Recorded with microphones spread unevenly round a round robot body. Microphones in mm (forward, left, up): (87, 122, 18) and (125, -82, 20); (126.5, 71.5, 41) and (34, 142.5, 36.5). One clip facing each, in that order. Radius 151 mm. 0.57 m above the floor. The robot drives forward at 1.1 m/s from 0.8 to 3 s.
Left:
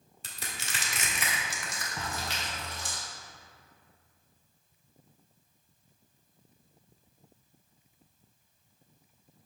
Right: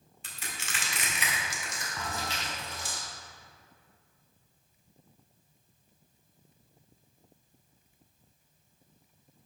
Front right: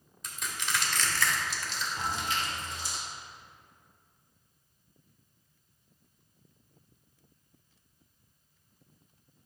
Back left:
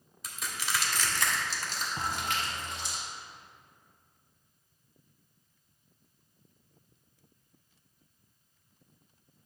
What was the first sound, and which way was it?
Crushing, 55° left.